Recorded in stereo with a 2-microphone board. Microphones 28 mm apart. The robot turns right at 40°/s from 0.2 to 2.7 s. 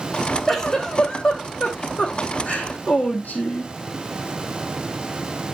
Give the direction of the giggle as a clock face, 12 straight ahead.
12 o'clock.